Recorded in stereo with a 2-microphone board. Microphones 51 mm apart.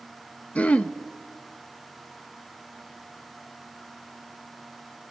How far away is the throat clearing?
About 1.0 m.